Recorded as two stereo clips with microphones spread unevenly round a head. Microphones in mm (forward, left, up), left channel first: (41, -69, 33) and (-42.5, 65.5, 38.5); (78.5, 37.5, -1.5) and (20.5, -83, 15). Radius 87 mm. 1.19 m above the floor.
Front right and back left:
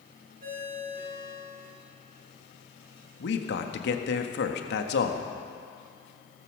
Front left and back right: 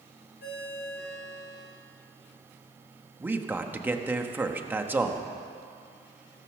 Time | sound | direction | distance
0.4 | a ringtone | 85° left | 5 m
3.2 | a man speaking | 40° right | 1.5 m